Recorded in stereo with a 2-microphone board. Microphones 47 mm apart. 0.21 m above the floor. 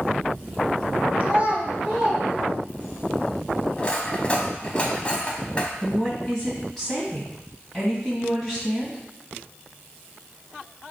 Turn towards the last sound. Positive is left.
turn(degrees=10)  # may be behind; listen again after turning